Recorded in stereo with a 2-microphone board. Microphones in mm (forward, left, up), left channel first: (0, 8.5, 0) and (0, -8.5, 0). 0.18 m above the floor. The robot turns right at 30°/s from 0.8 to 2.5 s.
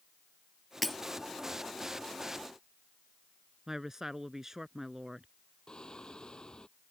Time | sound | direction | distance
0.8 | breaking glass | 5° left (ahead or behind) | ?
3.7 | a woman speaking | 30° right (ahead or behind) | ?
5.7 | singing | 55° left (ahead or behind) | ?